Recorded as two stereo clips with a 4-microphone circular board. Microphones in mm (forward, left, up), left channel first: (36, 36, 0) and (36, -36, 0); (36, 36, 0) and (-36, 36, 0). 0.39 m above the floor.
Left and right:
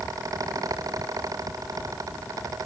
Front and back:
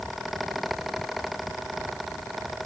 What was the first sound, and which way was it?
Only background noise.